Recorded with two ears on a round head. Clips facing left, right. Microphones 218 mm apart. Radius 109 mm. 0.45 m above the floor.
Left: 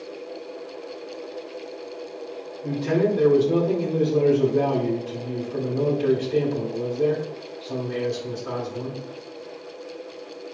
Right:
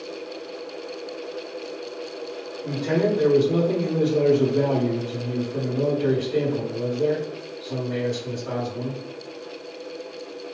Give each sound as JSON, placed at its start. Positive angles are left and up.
{"t": 2.6, "sound": "a man speaking", "side_deg": 30, "distance_m": 1.2}